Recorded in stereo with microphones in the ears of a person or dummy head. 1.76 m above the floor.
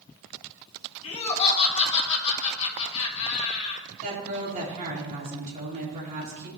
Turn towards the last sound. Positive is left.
turn(degrees=-40)  # may be behind; listen again after turning